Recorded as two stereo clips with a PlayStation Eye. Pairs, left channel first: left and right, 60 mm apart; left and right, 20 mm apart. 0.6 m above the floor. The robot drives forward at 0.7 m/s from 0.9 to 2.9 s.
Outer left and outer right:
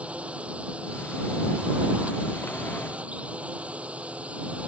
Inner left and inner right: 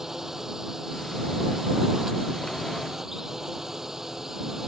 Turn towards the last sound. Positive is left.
turn(degrees=-20)  # may be behind; listen again after turning